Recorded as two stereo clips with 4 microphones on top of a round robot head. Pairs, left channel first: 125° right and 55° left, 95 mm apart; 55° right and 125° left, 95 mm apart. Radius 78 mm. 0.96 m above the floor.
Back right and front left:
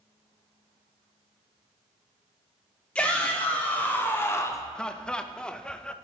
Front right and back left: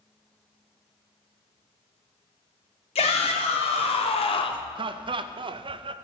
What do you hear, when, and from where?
3.0 s a shout: 50° right, 2.5 m; by 4.7 s 75° right, 0.9 m
4.8 s laughter: 155° left, 0.6 m